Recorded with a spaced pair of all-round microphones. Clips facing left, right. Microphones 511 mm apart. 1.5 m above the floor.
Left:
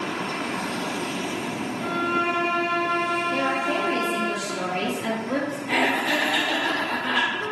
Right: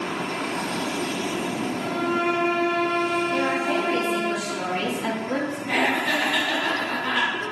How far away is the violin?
About 1.7 m.